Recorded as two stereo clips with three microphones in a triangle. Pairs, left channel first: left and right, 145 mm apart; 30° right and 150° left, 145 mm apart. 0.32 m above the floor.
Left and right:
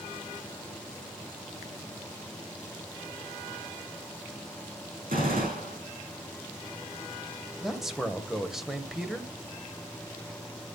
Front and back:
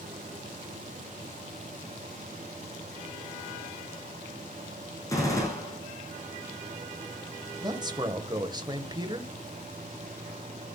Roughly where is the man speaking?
Behind.